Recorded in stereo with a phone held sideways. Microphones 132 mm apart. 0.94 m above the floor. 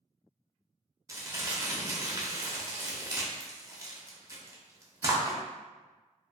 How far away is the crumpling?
About 0.6 m.